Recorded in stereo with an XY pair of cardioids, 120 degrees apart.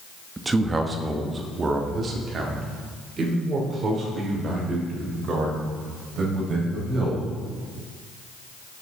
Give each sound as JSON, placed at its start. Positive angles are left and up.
{"t": 0.4, "sound": "a man speaking", "azimuth_deg": -15, "distance_m": 1.0}